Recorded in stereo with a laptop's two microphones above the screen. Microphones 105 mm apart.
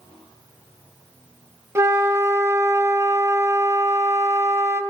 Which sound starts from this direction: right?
A flute, at 1.8 s.